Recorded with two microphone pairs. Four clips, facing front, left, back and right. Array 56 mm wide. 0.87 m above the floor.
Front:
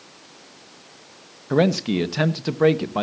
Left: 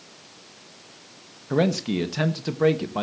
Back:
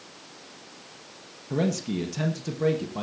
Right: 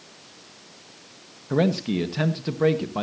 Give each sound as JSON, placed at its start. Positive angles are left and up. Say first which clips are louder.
{"t": 1.5, "sound": "a man speaking", "louder": "even, front 8 dB", "azimuth_deg": 5, "distance_m": 1.1}